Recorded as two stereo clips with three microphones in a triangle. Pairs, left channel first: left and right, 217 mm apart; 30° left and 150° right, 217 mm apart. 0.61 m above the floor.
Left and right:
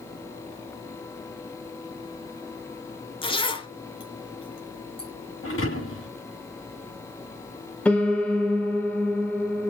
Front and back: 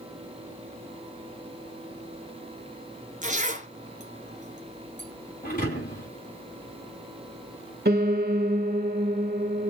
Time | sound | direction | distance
3.2 | a zipper | 155° left | 1.6 m
5.4 | a thud | 80° left | 6 m
7.8 | a piano | 175° left | 1.8 m